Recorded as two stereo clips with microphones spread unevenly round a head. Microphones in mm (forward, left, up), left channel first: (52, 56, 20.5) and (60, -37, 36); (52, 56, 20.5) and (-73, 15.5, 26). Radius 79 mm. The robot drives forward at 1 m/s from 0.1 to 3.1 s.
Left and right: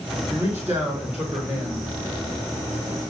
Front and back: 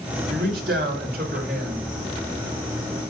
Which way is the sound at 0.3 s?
160° right.